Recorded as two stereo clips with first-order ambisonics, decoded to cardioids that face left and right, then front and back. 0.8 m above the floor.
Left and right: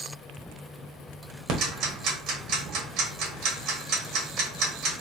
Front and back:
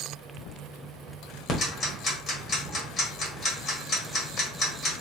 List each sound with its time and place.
1.5 s ticking: 55° right, 1.1 m